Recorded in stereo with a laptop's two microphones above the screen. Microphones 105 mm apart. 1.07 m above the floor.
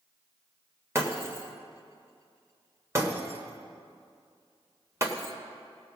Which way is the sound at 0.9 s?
25° right (ahead or behind).